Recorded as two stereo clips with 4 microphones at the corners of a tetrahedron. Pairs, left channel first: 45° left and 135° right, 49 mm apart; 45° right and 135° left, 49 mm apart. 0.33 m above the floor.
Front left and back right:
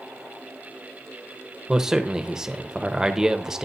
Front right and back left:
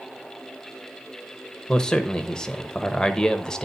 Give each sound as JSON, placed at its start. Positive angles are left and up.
{"t": 1.7, "sound": "a man speaking", "azimuth_deg": -85, "distance_m": 0.9}